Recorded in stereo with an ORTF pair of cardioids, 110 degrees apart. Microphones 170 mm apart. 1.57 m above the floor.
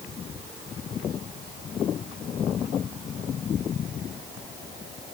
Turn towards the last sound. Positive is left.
No sound to turn to.